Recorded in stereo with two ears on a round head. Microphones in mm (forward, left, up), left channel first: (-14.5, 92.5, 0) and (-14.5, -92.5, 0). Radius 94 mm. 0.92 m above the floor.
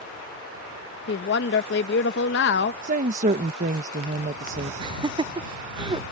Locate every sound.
1.1 s a woman speaking: 55° left (ahead or behind)
2.8 s a woman speaking: 40° right (ahead or behind)
4.8 s laughter: 25° right (ahead or behind)